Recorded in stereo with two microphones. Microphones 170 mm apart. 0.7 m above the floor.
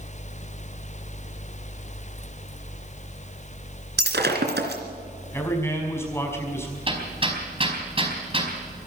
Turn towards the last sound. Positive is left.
turn(degrees=-35)  # may be behind; listen again after turning